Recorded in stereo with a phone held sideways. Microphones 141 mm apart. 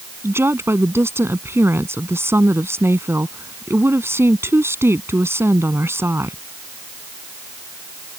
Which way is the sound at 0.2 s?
15° right (ahead or behind).